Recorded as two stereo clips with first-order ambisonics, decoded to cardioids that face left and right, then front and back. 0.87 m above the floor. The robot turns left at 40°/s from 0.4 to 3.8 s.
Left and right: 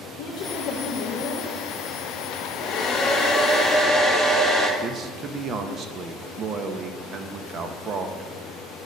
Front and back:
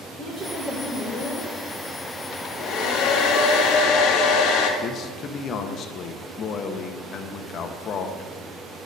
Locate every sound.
0.2 s a woman speaking: 95° left, 1.5 m; by 1.5 s 50° left, 1.5 m
2.3 s a hair dryer: 45° left, 1.5 m; by 4.7 s 15° right, 1.5 m
4.8 s a man speaking: 40° right, 0.7 m